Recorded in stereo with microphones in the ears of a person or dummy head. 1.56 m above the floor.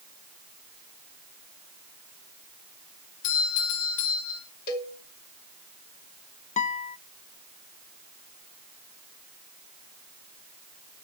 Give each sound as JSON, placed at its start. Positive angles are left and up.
{"t": 3.2, "sound": "a doorbell", "side_deg": 60, "distance_m": 7.0}
{"t": 4.7, "sound": "a cowbell", "side_deg": 50, "distance_m": 3.0}
{"t": 6.6, "sound": "a guitar", "side_deg": 40, "distance_m": 0.6}